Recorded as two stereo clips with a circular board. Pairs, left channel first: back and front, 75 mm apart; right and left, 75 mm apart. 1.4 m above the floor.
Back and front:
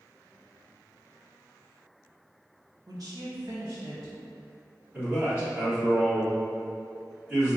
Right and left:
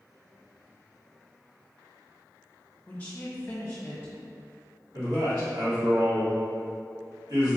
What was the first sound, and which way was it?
A woman speaking, 25° right.